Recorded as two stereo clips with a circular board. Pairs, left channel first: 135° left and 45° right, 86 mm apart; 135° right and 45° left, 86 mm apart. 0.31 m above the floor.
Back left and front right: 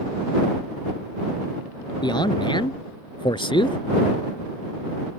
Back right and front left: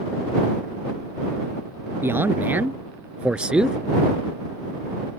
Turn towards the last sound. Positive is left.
turn(degrees=125)